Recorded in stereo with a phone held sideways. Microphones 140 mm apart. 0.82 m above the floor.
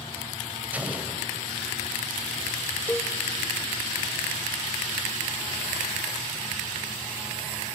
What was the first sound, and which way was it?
An explosion, 10° right (ahead or behind).